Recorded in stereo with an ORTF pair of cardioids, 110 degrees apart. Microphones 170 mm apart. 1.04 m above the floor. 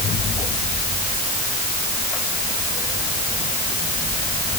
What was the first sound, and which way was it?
Only background noise.